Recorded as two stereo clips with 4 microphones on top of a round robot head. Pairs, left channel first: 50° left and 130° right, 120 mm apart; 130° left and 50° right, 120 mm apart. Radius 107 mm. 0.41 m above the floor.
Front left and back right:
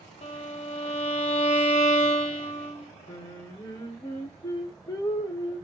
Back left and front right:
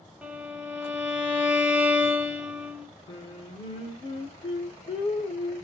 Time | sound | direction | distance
0.2 | a violin | 25° left | 0.7 m
3.1 | singing | 105° left | 0.7 m